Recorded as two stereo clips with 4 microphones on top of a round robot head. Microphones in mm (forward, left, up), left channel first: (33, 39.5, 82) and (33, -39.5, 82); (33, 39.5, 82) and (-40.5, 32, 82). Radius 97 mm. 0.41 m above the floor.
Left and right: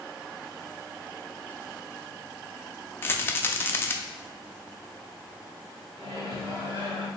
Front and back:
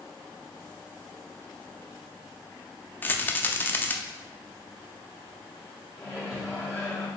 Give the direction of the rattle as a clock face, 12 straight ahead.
10 o'clock.